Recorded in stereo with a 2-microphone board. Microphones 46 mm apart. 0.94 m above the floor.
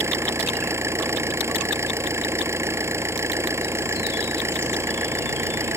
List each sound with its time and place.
0.0 s an engine running: 85° right